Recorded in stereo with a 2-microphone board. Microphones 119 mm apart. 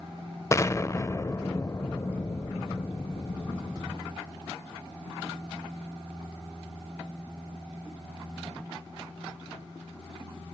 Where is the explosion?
25° left (ahead or behind), 0.5 m.